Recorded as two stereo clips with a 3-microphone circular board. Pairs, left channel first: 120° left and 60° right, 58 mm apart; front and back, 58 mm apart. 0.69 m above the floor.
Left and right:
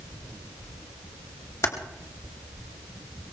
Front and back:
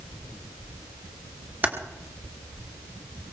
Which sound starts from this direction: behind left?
Typing on a keyboard, at 1.6 s.